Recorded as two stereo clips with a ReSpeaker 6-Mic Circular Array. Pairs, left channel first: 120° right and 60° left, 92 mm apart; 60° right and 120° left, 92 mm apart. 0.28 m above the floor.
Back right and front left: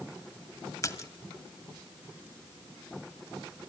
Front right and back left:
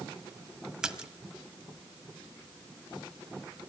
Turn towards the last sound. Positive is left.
turn(degrees=-160)